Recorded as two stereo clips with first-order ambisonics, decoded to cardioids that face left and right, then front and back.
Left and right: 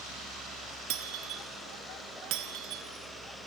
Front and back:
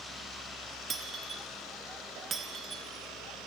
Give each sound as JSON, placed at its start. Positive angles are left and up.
{"t": 0.9, "sound": "breaking glass", "azimuth_deg": -110, "distance_m": 2.5}